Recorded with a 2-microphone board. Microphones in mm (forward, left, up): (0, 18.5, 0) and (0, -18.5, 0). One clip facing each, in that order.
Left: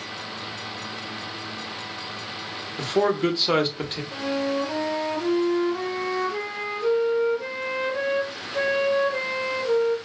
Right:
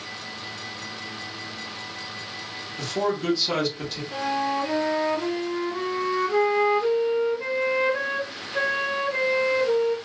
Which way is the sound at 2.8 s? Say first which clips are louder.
Left 4 dB; 40° left (ahead or behind).